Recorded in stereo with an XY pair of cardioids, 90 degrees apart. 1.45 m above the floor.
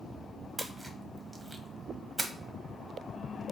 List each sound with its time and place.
0.6 s a splash: 20° right, 0.9 m